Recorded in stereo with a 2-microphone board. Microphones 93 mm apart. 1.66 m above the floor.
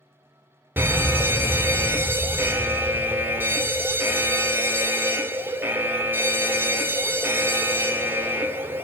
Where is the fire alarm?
20° right (ahead or behind), 0.6 m.